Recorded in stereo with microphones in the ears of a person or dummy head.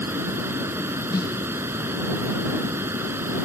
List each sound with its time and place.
0.0 s running water: 5° right (ahead or behind)
1.1 s a snare drum: 15° left (ahead or behind)